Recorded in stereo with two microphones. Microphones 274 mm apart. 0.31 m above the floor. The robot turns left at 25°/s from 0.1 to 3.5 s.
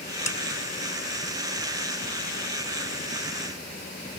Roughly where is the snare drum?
Left.